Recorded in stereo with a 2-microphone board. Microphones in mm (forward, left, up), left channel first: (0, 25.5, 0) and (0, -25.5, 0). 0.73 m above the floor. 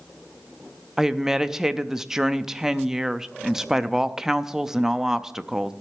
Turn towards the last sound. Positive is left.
turn(degrees=-10)  # may be behind; listen again after turning